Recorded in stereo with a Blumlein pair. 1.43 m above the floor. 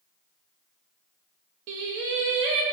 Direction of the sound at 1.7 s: 40° right.